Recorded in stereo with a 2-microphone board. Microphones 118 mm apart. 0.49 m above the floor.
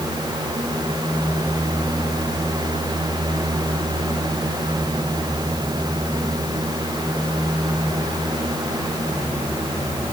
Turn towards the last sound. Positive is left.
No sound to turn to.